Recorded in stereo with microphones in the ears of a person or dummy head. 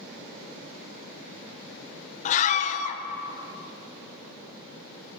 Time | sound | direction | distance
2.2 | a scream | 45° left (ahead or behind) | 0.9 m